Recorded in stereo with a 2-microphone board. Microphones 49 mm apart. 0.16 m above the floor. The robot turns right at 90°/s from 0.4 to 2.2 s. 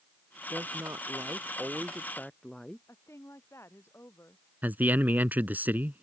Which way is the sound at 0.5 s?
135° right.